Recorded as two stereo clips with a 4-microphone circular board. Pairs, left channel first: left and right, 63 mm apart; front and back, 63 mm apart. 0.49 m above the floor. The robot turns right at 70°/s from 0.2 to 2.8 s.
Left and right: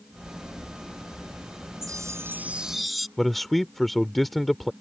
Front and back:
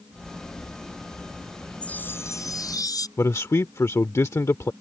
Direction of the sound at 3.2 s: Straight ahead.